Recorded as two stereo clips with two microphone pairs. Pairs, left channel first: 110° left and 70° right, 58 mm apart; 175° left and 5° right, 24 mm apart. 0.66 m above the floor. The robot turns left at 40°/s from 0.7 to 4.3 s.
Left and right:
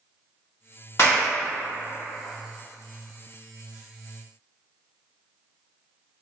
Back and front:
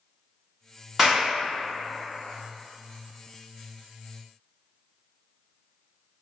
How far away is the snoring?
I don't hear snoring.